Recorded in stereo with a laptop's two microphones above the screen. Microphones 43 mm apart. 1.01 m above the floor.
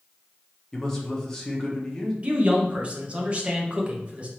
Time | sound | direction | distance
0.7 | a man speaking | 15° left (ahead or behind) | 1.0 m
2.2 | a man speaking | 30° right (ahead or behind) | 1.2 m